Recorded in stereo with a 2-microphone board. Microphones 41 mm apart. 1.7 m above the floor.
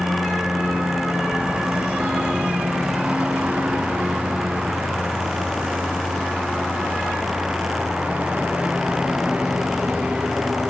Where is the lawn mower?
30° right (ahead or behind).